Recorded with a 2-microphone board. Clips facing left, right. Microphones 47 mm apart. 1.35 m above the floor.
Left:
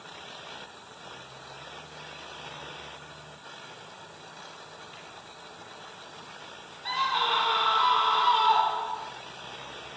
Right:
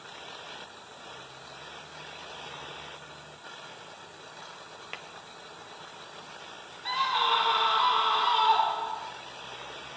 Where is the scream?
Centre (ahead or behind), 4.5 m.